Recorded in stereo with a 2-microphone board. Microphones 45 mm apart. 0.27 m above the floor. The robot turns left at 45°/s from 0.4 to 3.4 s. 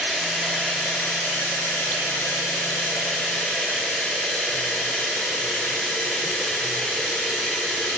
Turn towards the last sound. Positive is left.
turn(degrees=30)